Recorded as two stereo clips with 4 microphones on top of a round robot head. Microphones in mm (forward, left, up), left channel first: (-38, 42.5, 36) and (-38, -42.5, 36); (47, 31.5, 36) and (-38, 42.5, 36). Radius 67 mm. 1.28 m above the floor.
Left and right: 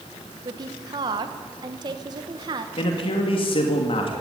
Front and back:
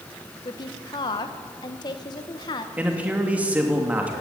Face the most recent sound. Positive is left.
turn(degrees=100)